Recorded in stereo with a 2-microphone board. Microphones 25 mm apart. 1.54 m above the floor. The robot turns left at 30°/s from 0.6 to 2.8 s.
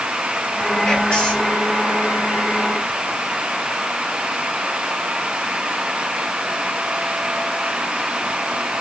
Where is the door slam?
No door slam in this recording.